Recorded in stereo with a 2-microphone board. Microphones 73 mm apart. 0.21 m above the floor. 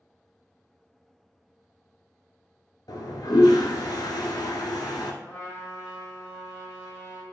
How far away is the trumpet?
About 1.7 m.